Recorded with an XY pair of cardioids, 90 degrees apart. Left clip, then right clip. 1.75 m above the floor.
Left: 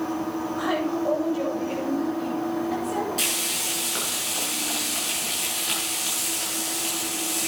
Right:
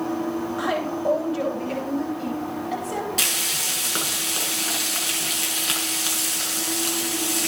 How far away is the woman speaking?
About 9 m.